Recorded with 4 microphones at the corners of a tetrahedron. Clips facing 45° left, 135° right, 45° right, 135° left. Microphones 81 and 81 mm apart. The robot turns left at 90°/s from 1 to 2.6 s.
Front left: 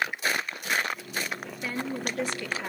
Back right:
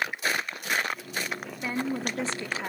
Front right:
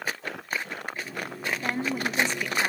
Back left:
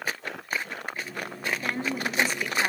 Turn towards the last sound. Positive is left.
turn(degrees=-175)